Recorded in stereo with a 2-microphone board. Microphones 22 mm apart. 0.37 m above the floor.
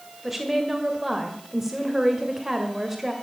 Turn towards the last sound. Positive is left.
turn(degrees=-10)  # may be behind; listen again after turning